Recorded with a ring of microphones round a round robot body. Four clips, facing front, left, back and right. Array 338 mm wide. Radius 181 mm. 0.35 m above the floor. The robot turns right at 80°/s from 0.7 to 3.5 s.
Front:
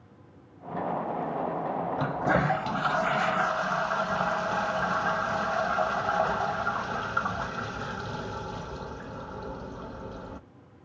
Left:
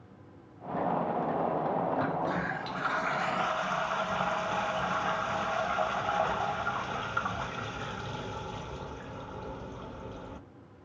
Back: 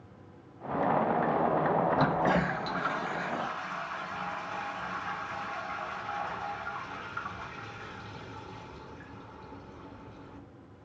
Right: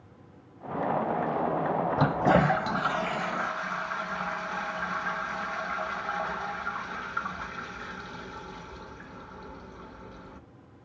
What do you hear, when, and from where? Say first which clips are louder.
2.0 s a toilet flushing: right 8 dB, even; 100° right, 1.0 m; by 10.4 s 20° left, 1.0 m